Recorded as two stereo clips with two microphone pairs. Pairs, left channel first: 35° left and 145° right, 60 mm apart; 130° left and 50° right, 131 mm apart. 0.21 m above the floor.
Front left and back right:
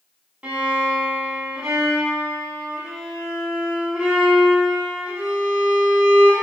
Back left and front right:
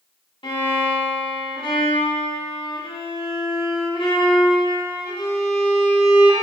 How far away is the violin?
About 0.7 m.